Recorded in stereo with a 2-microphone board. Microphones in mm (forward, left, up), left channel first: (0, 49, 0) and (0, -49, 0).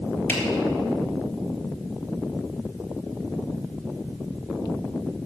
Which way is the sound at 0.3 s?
20° left (ahead or behind).